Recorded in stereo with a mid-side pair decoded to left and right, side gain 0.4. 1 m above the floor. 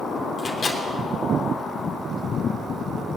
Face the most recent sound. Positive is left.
turn(degrees=50)